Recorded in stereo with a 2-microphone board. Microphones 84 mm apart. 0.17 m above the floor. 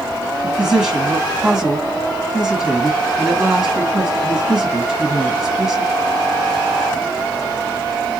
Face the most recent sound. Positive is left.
turn(degrees=-5)  # may be behind; listen again after turning